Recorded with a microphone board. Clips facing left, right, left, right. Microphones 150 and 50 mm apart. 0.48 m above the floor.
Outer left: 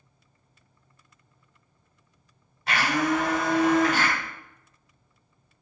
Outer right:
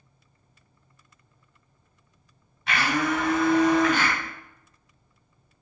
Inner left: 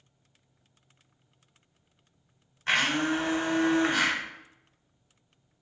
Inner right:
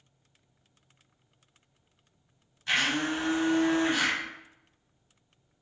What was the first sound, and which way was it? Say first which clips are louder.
A blender: outer left 1 dB, inner left 2 dB; 40° left (ahead or behind).